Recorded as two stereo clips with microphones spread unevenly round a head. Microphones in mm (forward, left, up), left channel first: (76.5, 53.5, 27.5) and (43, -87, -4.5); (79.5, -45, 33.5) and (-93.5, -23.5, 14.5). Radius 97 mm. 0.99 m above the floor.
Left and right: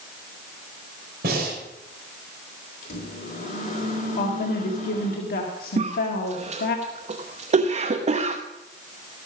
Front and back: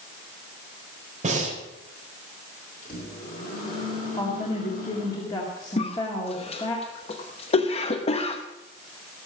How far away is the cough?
About 0.9 m.